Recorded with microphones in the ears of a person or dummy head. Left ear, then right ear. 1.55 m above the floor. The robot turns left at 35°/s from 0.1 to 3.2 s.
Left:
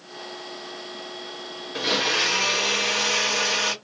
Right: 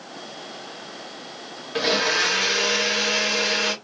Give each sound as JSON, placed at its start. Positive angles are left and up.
{"t": 1.8, "sound": "a blender", "azimuth_deg": -170, "distance_m": 1.0}